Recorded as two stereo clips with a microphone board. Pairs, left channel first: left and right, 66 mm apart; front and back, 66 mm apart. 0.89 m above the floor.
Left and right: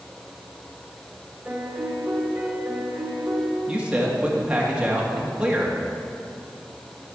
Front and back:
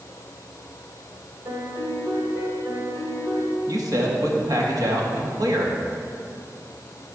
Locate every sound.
1.4 s a piano: 165° right, 2 m
3.7 s a man speaking: 160° right, 1.7 m